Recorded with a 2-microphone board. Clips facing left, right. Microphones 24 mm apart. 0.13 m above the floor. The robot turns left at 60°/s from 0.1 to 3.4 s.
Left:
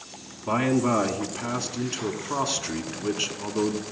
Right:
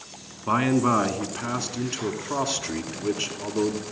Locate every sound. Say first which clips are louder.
0.5 s a man speaking: right 2 dB; 20° right (ahead or behind), 1.1 m; by 3.8 s 20° left (ahead or behind), 1.1 m